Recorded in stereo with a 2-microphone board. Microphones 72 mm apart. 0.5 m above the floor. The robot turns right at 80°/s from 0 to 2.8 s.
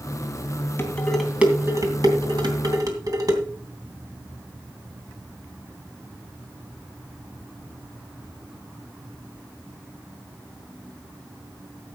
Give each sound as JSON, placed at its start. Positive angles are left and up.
{"t": 0.8, "sound": "dishes clattering", "side_deg": 35, "distance_m": 2.5}